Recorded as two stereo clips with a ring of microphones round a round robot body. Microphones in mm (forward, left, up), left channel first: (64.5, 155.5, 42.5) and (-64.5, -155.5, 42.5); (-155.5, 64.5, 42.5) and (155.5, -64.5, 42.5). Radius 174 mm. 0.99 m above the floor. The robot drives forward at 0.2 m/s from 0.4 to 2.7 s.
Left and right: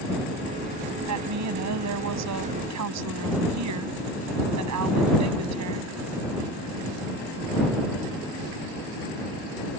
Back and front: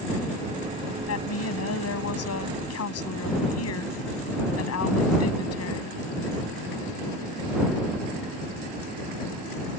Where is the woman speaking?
155° right.